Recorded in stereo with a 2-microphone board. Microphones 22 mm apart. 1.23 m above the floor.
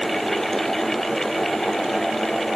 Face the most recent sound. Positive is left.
No sound to turn to.